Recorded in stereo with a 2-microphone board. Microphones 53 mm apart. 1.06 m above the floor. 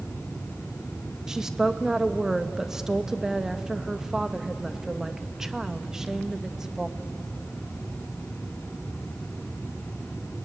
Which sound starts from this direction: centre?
A woman speaking, at 1.3 s.